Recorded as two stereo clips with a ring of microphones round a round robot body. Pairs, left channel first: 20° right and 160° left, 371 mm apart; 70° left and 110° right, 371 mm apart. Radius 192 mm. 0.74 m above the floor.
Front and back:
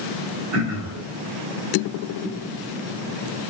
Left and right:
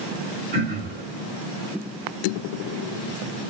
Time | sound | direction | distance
0.5 | throat clearing | 175° right | 8 m